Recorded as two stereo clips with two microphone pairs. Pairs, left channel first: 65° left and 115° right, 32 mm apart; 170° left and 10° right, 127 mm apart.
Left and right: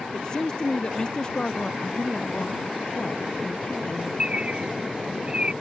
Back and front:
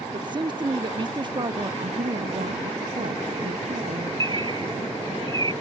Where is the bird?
60° right.